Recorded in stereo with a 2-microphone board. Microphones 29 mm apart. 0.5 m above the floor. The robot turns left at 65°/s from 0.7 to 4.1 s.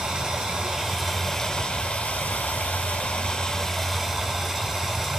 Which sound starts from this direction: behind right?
Running water, at 0.0 s.